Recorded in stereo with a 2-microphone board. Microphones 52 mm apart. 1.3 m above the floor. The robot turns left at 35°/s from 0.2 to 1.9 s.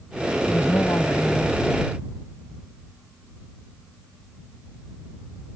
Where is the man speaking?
75° left; by 2.0 s 25° left.